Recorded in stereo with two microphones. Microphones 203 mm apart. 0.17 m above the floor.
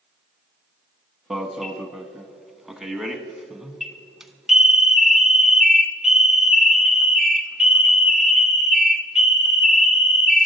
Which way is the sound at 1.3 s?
Centre (ahead or behind).